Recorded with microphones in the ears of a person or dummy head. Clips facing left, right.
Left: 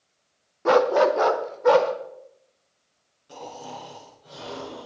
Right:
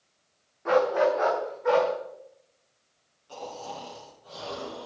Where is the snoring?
30° left (ahead or behind), 7.5 m.